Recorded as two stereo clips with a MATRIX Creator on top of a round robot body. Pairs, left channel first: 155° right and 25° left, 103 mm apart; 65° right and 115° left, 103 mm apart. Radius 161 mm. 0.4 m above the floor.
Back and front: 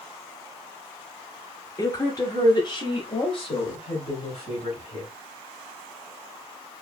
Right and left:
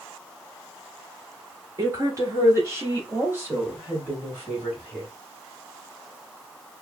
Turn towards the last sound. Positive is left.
turn(degrees=-165)